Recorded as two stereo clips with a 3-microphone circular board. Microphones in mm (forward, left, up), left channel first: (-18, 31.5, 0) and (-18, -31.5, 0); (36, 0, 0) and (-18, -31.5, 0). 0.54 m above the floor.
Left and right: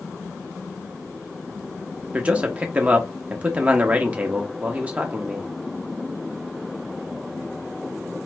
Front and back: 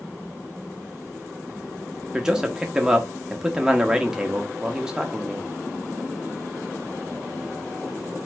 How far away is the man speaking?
About 0.6 m.